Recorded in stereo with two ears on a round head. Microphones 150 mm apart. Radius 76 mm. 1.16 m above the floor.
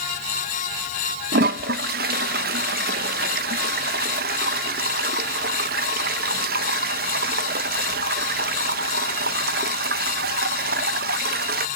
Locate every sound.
1.3 s a toilet flushing: 55° right (ahead or behind), 0.6 m